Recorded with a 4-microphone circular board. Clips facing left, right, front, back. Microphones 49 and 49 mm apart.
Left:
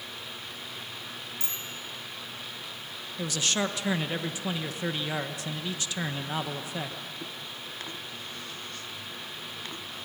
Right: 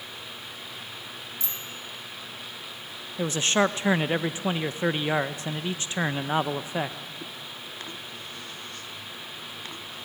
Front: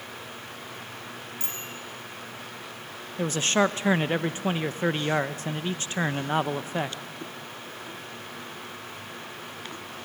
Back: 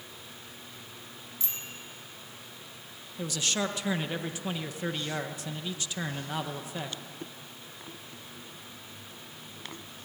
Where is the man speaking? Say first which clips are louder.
Right 6 dB, front 8 dB; 40° right, 0.6 m.